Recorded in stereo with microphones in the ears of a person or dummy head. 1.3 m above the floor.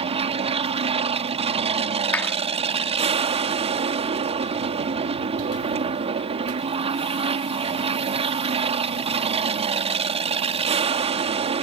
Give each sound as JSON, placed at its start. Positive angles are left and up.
{"t": 0.0, "sound": "an aircraft", "side_deg": -35}
{"t": 2.1, "sound": "a clap", "side_deg": 15}